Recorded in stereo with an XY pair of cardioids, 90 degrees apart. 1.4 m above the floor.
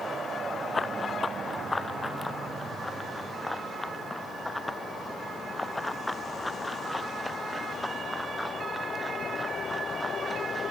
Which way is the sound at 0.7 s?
30° left.